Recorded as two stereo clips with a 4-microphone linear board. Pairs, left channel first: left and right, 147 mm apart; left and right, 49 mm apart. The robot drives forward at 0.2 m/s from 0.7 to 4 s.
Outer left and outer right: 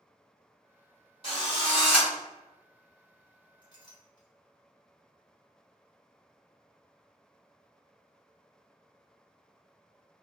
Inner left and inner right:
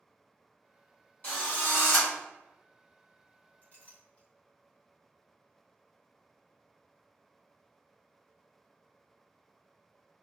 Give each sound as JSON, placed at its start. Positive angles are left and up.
{"t": 1.2, "sound": "a drill", "side_deg": 40, "distance_m": 1.8}
{"t": 3.6, "sound": "a clink", "side_deg": 35, "distance_m": 1.1}